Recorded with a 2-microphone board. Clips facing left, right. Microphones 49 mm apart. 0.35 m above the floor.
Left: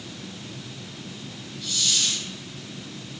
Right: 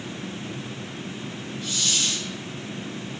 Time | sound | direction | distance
1.6 | a hiss | 35° right (ahead or behind) | 1.4 m